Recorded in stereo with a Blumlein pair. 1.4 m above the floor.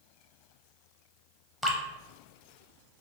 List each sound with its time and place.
1.6 s dripping: straight ahead, 0.5 m